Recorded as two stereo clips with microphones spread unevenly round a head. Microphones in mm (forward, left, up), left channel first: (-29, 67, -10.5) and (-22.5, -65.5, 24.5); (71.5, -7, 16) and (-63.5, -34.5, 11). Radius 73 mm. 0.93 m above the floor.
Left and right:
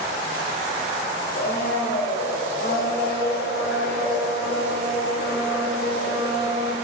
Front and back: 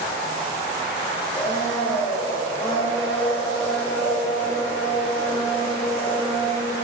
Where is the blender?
75° left, 2.5 m.